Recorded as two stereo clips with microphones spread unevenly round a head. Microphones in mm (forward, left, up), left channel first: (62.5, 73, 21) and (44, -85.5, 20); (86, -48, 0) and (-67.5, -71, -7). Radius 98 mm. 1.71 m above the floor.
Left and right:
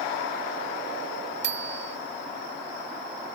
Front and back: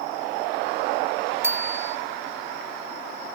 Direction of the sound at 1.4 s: 95° right.